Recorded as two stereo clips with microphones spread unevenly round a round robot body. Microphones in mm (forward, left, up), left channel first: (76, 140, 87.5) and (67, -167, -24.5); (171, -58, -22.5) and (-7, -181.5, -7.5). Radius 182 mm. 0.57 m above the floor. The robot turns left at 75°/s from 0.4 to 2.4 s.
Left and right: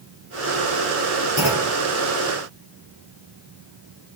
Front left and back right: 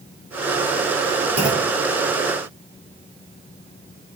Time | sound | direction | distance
1.4 | a clunk | 175° right | 3 m